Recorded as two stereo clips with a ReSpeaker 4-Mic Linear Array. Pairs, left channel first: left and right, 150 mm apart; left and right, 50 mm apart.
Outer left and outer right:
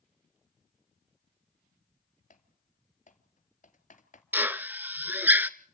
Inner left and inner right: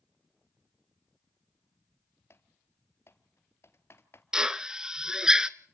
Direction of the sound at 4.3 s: 15° right (ahead or behind).